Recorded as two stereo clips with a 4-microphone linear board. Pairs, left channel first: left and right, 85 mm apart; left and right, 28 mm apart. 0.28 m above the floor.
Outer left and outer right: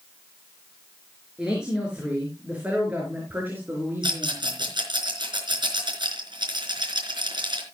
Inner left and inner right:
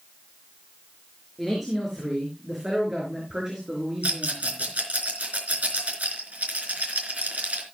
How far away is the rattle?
About 4 m.